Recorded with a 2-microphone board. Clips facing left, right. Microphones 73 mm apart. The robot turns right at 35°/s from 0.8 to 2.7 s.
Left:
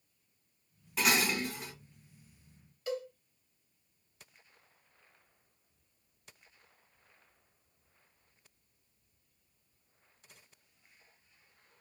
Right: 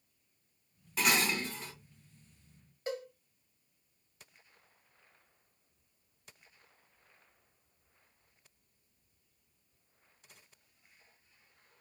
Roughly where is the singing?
No singing in this recording.